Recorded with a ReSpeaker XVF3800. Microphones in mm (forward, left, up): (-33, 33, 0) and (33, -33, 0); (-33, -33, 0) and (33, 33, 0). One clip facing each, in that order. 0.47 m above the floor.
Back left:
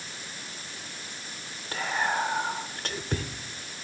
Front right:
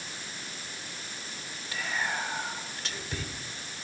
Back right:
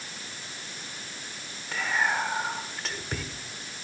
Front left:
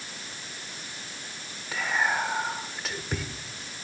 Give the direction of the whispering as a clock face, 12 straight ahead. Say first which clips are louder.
Back left 5 dB, even; 8 o'clock.